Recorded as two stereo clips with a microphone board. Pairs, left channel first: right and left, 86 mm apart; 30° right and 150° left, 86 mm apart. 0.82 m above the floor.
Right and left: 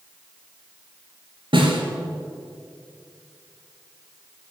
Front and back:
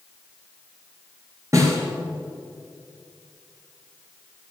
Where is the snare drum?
100° left, 2.5 m.